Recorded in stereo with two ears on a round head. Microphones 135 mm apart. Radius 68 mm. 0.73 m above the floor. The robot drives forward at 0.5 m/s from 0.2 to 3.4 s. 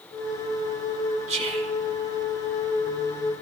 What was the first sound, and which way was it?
Whispering, 45° right (ahead or behind).